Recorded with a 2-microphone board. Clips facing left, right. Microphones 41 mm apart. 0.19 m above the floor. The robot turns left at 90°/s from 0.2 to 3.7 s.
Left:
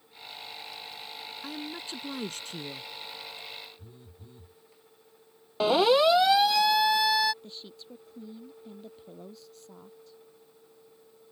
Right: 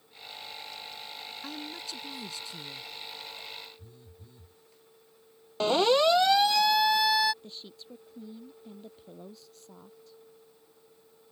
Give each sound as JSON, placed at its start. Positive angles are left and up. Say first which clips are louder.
{"t": 1.4, "sound": "a woman speaking", "louder": "left 3 dB", "azimuth_deg": 175}
{"t": 3.8, "sound": "a phone buzzing", "louder": "left 2 dB", "side_deg": 25}
{"t": 5.6, "sound": "a siren", "louder": "left 2 dB", "side_deg": 10}
{"t": 7.4, "sound": "a woman speaking", "louder": "left 1 dB", "side_deg": -5}